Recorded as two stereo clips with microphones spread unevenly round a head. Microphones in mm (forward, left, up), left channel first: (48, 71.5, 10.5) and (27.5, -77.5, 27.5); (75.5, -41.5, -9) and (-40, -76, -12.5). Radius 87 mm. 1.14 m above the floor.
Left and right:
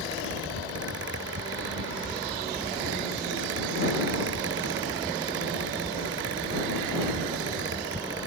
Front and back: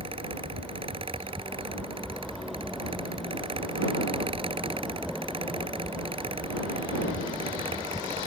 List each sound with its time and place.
0.0 s a fan: 120° right